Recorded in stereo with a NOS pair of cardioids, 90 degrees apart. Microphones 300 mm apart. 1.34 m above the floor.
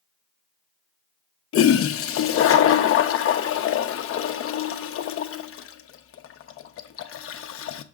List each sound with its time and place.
1.5 s a toilet flushing: 55° left, 0.8 m